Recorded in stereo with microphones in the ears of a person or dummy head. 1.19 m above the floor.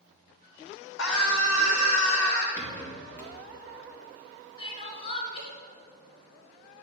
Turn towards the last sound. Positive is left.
turn(degrees=35)  # may be behind; listen again after turning